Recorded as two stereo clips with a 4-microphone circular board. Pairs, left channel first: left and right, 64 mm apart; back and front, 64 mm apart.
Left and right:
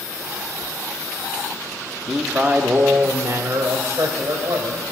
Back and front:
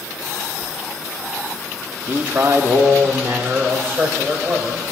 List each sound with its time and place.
2.1 s a man speaking: 5° left, 0.6 m; by 4.8 s 55° right, 2.5 m